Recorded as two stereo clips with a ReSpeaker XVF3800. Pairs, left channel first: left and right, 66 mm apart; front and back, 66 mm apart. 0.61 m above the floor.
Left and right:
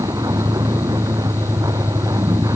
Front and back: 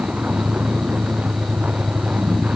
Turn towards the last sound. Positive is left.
turn(degrees=-110)